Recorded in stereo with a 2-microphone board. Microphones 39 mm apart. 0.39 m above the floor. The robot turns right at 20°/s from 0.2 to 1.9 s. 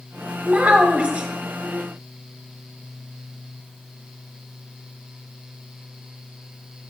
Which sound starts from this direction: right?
A child speaking, at 0.4 s.